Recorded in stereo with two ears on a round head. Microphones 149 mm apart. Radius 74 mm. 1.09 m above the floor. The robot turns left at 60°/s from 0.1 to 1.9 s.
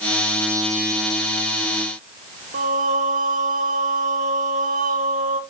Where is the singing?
55° right (ahead or behind), 0.9 m.